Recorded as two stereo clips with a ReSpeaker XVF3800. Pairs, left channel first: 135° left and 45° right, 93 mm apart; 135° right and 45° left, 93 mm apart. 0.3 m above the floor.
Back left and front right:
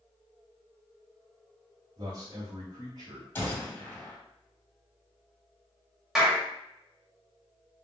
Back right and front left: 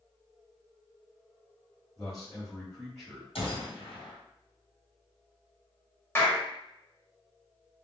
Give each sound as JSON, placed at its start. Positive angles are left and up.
{"t": 2.0, "sound": "a man speaking", "azimuth_deg": -50, "distance_m": 1.3}
{"t": 3.4, "sound": "a gunshot", "azimuth_deg": -155, "distance_m": 1.5}
{"t": 6.2, "sound": "a clap", "azimuth_deg": -125, "distance_m": 0.9}